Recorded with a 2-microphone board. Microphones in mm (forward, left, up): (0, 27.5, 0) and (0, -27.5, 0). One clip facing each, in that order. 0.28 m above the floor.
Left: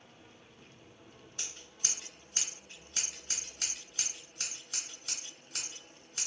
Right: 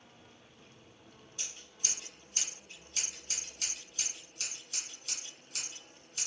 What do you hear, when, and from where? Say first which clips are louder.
1.4 s scissors: left 1 dB; 50° left (ahead or behind), 1.5 m